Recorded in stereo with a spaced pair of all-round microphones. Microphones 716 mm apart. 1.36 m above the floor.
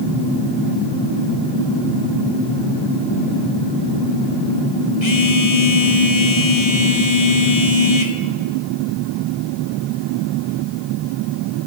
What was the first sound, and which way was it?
A phone buzzing, 40° left (ahead or behind).